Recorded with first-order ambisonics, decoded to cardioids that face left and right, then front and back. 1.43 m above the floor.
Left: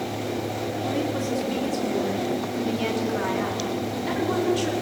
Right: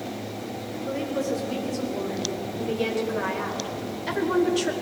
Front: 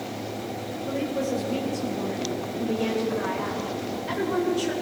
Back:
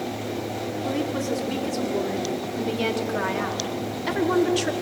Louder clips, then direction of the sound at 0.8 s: Right 1 dB, even; 160° left.